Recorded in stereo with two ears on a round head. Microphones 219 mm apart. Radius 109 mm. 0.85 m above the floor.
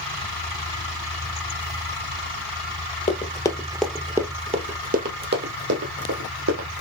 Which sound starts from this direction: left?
Running footsteps, at 3.1 s.